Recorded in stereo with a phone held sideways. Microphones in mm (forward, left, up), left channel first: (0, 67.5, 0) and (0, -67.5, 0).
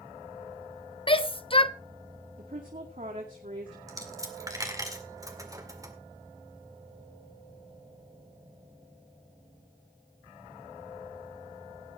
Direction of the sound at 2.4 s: 70° right (ahead or behind).